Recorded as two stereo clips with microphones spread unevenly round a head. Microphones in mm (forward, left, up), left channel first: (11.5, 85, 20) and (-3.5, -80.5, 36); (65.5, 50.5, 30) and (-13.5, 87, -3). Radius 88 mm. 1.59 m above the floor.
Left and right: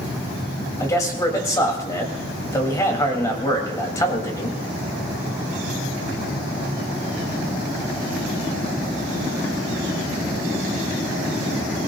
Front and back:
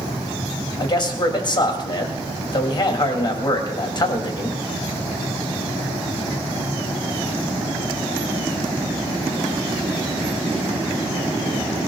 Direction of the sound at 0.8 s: 15° left.